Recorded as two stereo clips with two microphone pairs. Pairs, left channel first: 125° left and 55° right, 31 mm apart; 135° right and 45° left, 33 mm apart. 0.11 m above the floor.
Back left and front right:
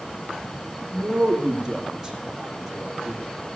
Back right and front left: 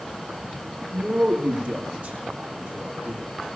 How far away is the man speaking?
About 3.5 m.